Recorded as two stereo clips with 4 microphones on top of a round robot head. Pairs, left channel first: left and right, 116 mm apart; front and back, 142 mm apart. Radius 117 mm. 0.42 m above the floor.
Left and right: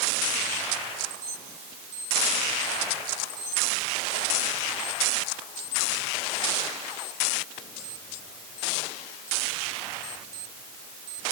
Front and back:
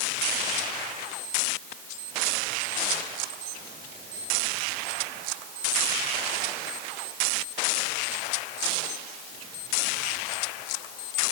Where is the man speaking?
No man speaking in this recording.